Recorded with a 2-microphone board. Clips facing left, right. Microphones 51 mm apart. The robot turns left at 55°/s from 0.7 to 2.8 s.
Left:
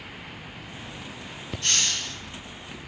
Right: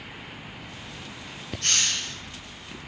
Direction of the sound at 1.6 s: 75° right (ahead or behind).